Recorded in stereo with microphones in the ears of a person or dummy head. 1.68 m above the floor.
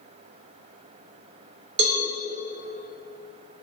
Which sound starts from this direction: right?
A cowbell, at 1.8 s.